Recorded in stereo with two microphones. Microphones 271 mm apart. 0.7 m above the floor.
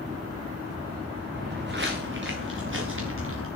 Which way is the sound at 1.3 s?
40° right (ahead or behind).